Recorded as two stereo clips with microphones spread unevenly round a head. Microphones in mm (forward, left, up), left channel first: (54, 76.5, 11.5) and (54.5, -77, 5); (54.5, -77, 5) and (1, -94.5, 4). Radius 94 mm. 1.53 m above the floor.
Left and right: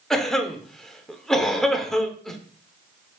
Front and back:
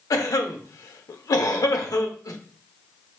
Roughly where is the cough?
Ahead.